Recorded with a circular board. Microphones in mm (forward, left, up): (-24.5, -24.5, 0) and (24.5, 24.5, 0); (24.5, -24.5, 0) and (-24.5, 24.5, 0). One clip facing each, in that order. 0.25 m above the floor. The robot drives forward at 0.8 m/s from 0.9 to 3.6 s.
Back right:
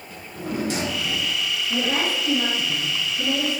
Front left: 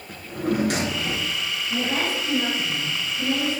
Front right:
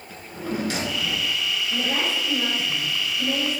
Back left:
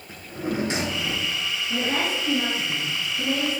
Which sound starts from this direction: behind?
A woman speaking, at 1.7 s.